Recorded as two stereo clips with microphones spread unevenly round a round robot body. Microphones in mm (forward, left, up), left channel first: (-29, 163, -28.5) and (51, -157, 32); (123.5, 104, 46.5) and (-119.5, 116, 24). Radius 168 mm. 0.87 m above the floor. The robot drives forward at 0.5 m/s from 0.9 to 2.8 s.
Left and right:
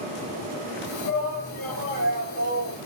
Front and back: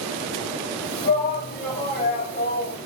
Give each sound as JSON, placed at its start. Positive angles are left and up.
{"t": 1.0, "sound": "a shout", "azimuth_deg": 45, "distance_m": 4.0}